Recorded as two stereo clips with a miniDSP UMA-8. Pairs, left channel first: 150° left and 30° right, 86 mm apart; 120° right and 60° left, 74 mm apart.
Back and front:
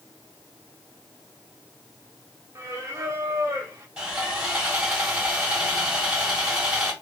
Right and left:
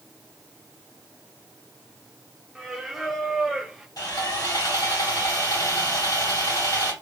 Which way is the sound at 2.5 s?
25° right.